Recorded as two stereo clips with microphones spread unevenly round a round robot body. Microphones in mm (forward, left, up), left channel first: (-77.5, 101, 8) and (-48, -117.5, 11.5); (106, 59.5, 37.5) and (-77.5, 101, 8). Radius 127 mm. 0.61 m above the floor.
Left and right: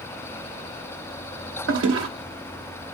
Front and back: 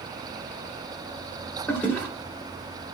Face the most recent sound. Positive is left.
turn(degrees=-100)